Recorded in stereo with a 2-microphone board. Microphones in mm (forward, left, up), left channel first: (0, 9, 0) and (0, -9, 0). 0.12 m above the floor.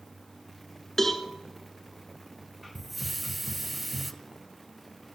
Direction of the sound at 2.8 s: Centre (ahead or behind).